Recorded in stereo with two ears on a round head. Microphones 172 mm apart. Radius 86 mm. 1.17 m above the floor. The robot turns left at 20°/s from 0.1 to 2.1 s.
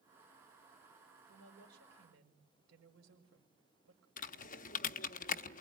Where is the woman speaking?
80° right, 5 m.